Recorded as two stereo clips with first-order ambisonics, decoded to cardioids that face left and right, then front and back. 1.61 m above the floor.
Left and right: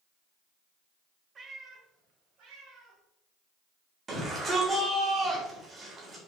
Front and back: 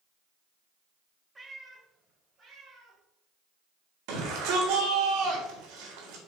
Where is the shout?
165° right, 4 m.